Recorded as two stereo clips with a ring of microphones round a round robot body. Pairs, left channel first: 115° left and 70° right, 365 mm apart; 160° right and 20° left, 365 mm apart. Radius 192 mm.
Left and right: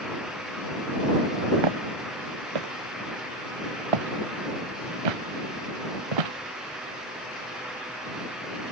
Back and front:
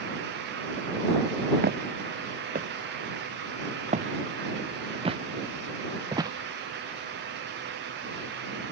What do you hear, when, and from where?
1.6 s footsteps: 45° right; by 6.3 s 60° right